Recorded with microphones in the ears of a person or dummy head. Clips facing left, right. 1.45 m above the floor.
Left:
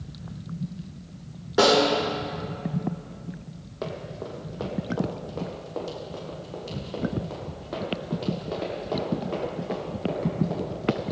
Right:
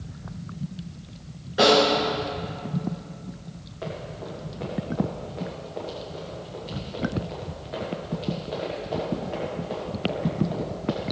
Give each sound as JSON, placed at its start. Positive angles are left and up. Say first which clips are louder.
{"t": 1.6, "sound": "a snare drum", "louder": "right 1 dB", "side_deg": 80, "distance_m": 3.5}
{"t": 3.8, "sound": "running footsteps", "louder": "left 1 dB", "side_deg": 65, "distance_m": 3.0}